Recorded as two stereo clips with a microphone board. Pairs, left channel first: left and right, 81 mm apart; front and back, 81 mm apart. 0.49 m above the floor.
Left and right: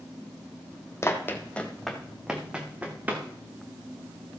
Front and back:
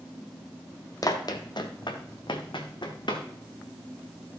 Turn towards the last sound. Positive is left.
turn(degrees=-20)